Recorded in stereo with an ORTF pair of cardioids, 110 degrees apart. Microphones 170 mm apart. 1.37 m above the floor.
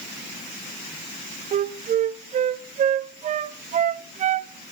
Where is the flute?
45° right, 0.6 m.